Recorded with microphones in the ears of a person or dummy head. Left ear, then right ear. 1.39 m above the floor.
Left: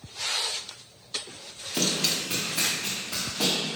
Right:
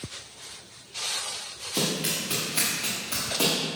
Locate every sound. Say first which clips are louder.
1.7 s running footsteps: left 2 dB; 10° left (ahead or behind), 1.5 m; by 3.5 s 25° right (ahead or behind), 2 m